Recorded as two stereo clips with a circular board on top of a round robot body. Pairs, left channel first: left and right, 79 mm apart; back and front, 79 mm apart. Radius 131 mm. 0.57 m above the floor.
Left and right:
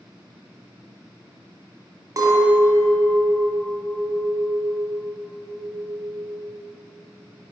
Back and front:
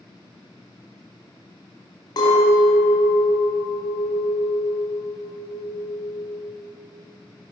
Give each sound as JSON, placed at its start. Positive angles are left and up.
{"t": 2.2, "sound": "a clink", "azimuth_deg": -145, "distance_m": 1.5}